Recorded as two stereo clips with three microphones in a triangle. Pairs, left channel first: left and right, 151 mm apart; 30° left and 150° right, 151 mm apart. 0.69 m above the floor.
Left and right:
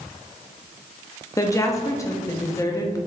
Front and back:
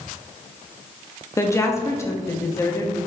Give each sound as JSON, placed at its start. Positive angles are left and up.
{"t": 1.4, "sound": "a woman speaking", "azimuth_deg": 65, "distance_m": 0.6}